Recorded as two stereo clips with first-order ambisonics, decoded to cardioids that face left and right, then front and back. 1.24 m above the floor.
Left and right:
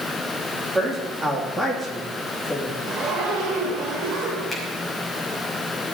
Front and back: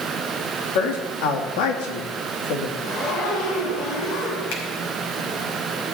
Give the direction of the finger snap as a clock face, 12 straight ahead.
12 o'clock.